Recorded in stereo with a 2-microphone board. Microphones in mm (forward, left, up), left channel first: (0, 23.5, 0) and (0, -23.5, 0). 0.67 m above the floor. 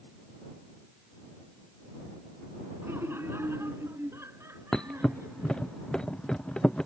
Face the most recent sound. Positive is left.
turn(degrees=15)  # may be behind; listen again after turning